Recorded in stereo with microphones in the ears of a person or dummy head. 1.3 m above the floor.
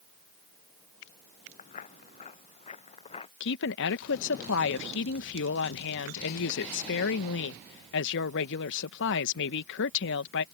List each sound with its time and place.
1.6 s footsteps: 40° left (ahead or behind); by 3.3 s 30° left (ahead or behind)
3.4 s a woman speaking: 65° left (ahead or behind)